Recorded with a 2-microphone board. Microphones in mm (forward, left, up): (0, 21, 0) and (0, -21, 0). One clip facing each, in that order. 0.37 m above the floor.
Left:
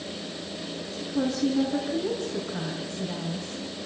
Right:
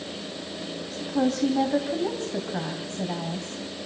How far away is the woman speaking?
About 3 m.